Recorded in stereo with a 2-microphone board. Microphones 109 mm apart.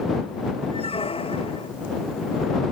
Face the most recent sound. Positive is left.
turn(degrees=60)  # may be behind; listen again after turning